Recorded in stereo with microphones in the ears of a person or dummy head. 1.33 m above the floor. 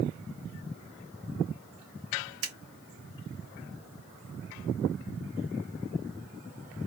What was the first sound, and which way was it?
Scissors, 85° right.